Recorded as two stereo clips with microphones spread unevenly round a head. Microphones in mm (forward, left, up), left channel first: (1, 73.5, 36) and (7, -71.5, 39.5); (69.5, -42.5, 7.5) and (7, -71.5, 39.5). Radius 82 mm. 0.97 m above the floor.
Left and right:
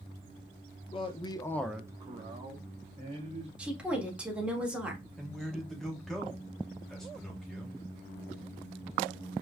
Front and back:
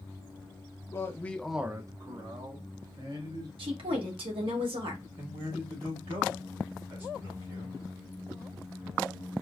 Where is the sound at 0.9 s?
45° left, 1.4 m; by 3.5 s 135° right, 2.5 m.